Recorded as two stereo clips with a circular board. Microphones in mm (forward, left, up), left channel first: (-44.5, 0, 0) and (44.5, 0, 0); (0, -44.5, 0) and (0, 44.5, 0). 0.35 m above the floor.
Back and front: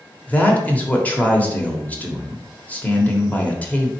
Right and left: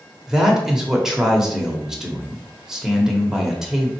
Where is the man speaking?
155° left, 0.8 m.